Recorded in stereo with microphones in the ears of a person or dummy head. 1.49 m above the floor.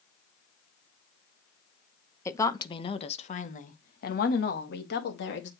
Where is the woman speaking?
15° left (ahead or behind), 1.1 m; by 5.5 s 70° left (ahead or behind), 2.5 m.